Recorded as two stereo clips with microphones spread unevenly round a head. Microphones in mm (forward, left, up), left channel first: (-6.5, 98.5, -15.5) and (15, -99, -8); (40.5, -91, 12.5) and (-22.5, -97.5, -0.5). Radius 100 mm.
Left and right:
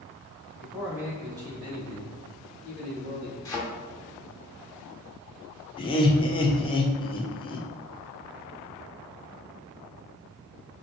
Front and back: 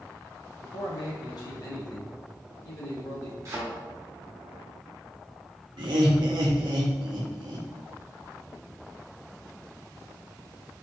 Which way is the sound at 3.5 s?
160° left.